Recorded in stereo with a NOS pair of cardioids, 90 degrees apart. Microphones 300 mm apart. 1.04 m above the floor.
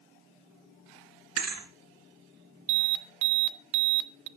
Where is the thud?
50° right, 3 m.